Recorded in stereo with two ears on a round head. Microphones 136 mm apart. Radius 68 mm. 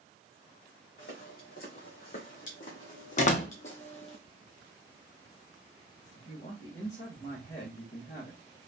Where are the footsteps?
70° left (ahead or behind), 2.5 m; by 4.2 s 40° left (ahead or behind), 1.0 m.